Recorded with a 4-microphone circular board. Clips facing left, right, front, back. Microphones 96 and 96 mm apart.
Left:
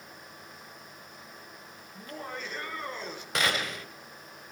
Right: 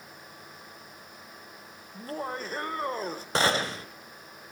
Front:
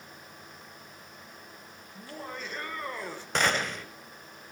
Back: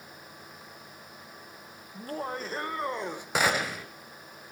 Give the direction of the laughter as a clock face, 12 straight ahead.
5 o'clock.